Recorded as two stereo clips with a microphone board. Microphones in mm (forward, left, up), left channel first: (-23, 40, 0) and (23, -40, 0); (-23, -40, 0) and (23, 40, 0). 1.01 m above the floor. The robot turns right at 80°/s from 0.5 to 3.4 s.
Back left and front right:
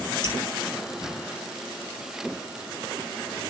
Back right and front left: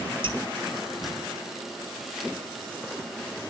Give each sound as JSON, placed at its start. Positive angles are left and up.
{"t": 0.2, "sound": "dripping", "azimuth_deg": 85, "distance_m": 4.5}